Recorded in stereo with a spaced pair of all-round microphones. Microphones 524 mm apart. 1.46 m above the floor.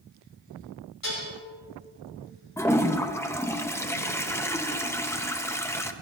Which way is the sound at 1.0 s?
40° left (ahead or behind).